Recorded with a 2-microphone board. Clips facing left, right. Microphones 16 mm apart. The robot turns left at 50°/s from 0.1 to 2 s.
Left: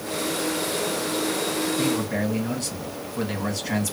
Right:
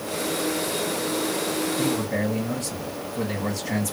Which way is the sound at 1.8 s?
55° left (ahead or behind).